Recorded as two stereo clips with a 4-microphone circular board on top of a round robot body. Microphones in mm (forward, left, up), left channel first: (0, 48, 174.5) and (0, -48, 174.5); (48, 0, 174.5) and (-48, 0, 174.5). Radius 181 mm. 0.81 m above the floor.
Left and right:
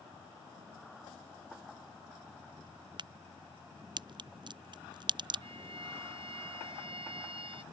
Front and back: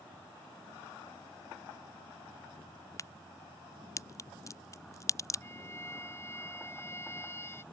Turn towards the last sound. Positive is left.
turn(degrees=-65)